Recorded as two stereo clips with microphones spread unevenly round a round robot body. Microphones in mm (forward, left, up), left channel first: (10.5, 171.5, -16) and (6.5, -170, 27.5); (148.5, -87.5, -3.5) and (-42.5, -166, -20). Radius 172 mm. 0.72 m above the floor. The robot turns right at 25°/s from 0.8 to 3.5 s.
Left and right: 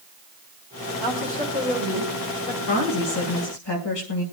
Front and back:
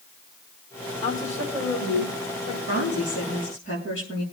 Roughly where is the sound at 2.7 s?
Left.